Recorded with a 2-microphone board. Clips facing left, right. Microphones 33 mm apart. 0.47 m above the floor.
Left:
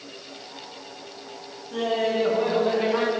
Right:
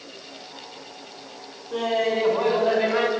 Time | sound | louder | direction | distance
1.7 | laughter | right 1 dB | 65° right (ahead or behind) | 4 m